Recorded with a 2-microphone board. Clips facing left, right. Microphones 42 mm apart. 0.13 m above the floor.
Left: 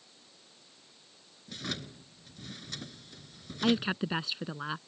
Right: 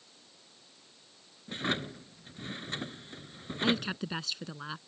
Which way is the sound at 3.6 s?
15° left (ahead or behind).